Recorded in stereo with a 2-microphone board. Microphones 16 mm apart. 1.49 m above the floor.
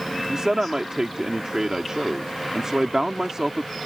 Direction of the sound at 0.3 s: 35° right (ahead or behind).